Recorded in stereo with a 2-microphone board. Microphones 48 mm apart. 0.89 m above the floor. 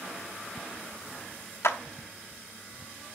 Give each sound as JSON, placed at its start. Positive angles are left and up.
{"t": 1.6, "sound": "a clap", "side_deg": 70, "distance_m": 1.0}